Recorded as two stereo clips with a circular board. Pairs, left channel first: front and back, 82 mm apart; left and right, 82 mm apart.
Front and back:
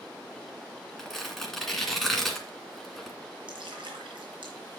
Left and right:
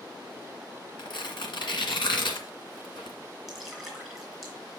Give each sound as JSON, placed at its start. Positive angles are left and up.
{"t": 1.0, "sound": "tearing paper", "azimuth_deg": 90, "distance_m": 1.8}
{"t": 3.5, "sound": "dripping", "azimuth_deg": 180, "distance_m": 3.5}